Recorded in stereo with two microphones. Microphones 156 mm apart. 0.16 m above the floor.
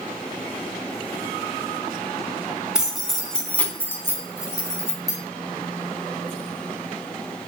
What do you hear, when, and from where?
2.8 s keys jangling: 5° right (ahead or behind), 0.9 m; by 5.2 s 20° left (ahead or behind), 1.5 m